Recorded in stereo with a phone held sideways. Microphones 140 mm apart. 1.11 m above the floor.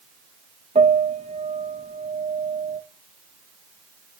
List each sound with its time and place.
0.8 s a piano: 55° right (ahead or behind), 1.5 m